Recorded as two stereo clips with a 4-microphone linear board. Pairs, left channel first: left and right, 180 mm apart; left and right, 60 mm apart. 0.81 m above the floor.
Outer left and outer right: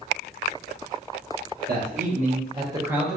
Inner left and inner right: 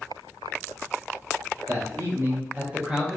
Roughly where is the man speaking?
Right.